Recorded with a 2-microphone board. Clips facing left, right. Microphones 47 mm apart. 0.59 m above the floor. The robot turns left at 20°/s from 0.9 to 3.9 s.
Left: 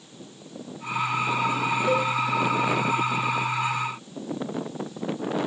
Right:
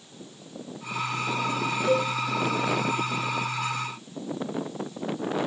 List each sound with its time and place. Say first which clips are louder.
1.9 s a cowbell: right 1 dB; 5° left (ahead or behind), 1.6 m; by 2.1 s centre (ahead or behind), 1.6 m